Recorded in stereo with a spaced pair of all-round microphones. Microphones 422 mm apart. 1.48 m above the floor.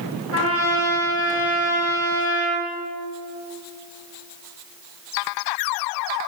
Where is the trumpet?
30° right (ahead or behind), 2.5 m.